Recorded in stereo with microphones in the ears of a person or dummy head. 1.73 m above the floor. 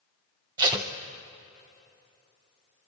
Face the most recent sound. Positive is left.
turn(degrees=-20)  # may be behind; listen again after turning